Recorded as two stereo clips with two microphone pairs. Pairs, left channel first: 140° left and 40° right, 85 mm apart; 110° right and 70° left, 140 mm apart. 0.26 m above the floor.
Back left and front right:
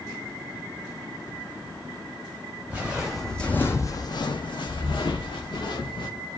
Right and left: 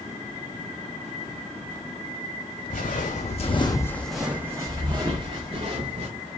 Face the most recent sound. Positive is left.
turn(degrees=115)